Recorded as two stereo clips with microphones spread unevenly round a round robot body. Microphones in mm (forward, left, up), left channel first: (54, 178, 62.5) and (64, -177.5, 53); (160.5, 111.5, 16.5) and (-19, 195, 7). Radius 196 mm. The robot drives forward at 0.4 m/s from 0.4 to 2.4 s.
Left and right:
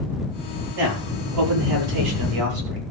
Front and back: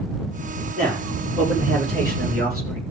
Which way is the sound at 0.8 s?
120° right.